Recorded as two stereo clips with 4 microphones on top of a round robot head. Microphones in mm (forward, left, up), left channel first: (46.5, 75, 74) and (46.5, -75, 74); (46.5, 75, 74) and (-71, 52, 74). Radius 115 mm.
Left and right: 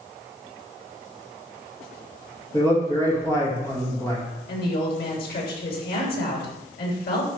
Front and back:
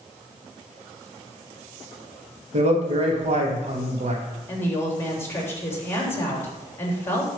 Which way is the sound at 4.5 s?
80° left.